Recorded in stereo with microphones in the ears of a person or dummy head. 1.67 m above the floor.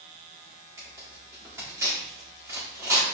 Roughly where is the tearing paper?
Centre.